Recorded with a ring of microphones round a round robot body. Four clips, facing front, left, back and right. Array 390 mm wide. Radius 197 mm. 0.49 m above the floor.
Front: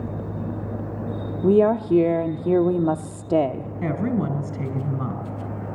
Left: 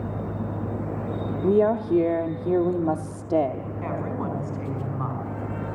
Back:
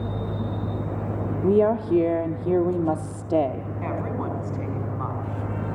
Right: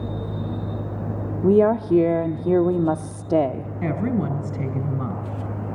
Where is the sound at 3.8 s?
50° right, 4 m.